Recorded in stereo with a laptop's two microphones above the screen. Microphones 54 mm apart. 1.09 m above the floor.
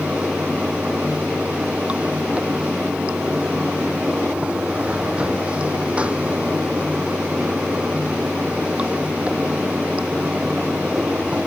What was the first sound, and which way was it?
Running water, 20° right (ahead or behind).